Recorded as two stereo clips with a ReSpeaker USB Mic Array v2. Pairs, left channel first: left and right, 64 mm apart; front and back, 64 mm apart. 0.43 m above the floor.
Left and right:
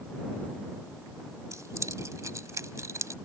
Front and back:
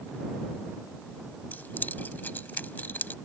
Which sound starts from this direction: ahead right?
Keys jangling, at 1.5 s.